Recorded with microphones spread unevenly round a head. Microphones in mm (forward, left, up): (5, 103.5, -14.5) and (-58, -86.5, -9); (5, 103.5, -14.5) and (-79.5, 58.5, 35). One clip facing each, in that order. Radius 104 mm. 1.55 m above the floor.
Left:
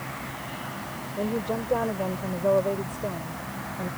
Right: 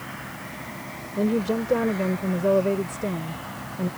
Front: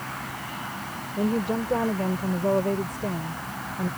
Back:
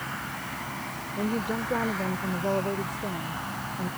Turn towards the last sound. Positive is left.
turn(degrees=-50)